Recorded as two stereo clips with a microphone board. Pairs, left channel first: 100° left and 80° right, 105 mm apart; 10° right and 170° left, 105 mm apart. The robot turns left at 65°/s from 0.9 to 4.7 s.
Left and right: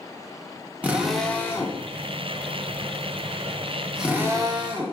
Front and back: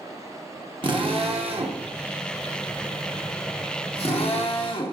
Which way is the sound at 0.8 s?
155° right.